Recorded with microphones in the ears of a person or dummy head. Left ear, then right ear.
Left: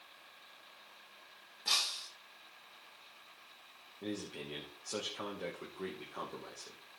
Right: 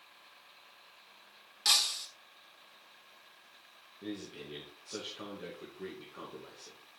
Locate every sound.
1.6 s breaking glass: 60° right (ahead or behind), 2.5 m
4.0 s a man speaking: 30° left (ahead or behind), 2.5 m